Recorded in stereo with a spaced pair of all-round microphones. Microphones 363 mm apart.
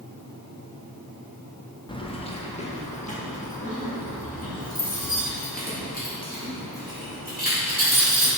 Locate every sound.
1.9 s keys jangling: 15° left (ahead or behind), 0.9 m; by 8.3 s 25° left (ahead or behind), 5 m